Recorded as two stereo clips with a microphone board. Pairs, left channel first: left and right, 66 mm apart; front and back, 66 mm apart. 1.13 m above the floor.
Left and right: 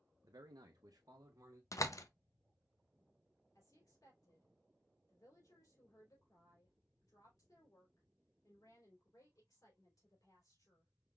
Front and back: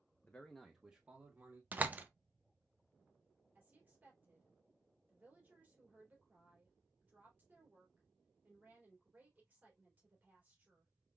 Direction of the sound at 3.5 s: 115° left.